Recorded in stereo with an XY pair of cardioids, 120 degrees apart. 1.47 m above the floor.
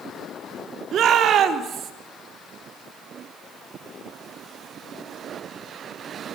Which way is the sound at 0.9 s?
55° right.